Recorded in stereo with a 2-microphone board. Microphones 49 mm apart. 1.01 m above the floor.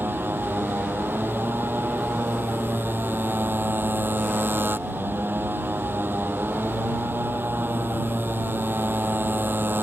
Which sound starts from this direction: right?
A motorcycle, at 0.0 s.